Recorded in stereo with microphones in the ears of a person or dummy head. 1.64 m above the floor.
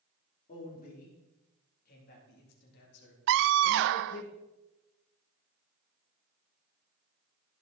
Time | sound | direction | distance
0.5 | a man speaking | 50° left (ahead or behind) | 4.5 m
3.3 | a scream | 65° right (ahead or behind) | 0.6 m